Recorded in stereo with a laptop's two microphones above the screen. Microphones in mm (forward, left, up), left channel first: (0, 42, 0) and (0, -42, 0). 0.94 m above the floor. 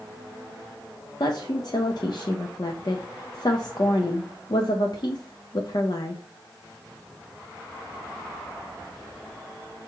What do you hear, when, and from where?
1.2 s a woman speaking: 55° left (ahead or behind), 0.5 m